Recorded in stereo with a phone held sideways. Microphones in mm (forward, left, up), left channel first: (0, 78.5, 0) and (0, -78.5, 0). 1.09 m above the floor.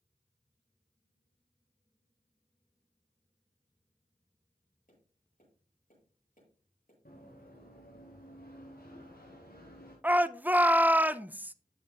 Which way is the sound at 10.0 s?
10° right (ahead or behind).